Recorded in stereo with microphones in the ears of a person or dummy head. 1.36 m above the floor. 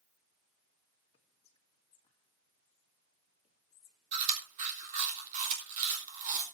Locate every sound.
1.1 s whispering: 30° left (ahead or behind), 2.0 m
4.1 s chewing: 40° right (ahead or behind), 3.5 m